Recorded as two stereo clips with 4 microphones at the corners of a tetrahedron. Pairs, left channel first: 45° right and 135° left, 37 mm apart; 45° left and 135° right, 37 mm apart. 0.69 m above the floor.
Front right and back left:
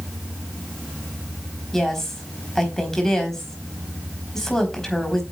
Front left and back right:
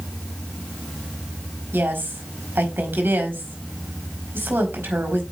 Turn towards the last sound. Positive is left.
turn(degrees=-120)